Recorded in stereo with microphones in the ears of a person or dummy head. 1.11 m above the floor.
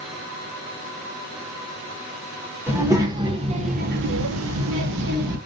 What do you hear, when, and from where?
2.7 s a child speaking: 10° right (ahead or behind), 1.0 m; by 5.4 s 50° right (ahead or behind), 0.8 m